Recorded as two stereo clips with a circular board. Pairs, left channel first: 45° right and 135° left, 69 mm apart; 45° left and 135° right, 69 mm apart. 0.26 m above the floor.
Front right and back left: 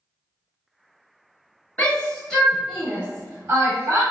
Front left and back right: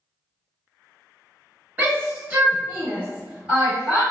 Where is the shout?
95° right, 1.2 m; by 4.0 s 150° left, 1.5 m.